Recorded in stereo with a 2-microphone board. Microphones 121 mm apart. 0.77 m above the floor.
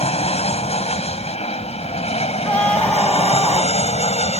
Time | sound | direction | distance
0.0 | an aircraft | 60° left (ahead or behind) | ?
2.4 | a scream | 10° left (ahead or behind) | ?